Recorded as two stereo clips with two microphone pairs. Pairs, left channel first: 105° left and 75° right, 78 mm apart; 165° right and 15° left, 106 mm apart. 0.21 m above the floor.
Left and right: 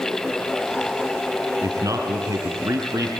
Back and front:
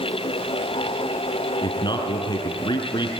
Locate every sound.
1.6 s a man speaking: 125° right, 4.5 m